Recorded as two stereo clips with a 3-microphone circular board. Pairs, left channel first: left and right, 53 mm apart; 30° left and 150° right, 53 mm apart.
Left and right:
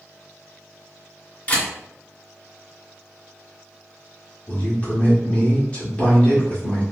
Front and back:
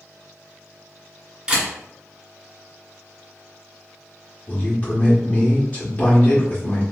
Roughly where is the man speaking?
Ahead left.